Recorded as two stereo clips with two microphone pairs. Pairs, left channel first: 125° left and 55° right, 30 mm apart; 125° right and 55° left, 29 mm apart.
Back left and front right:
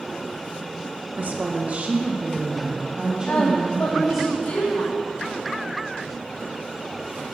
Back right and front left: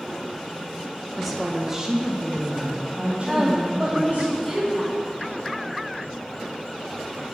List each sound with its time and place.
1.2 s a woman speaking: 35° right, 1.3 m; by 4.3 s 20° left, 3 m
3.3 s a woman speaking: 125° left, 1.4 m